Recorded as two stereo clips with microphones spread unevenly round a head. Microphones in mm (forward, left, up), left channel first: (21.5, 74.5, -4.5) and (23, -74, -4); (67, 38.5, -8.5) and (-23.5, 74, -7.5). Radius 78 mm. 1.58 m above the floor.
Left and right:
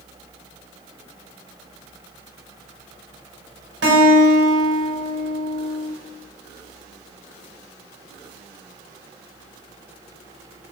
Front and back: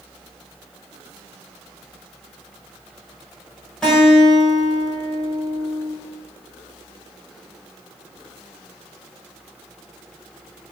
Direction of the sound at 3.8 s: 105° right.